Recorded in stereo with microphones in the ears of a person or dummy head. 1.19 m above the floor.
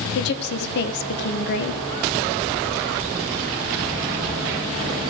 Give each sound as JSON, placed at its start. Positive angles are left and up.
{"t": 0.1, "sound": "a woman speaking", "side_deg": 55, "distance_m": 1.1}